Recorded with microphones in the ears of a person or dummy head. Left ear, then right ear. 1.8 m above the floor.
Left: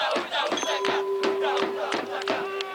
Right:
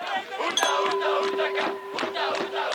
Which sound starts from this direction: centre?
A clink, at 0.6 s.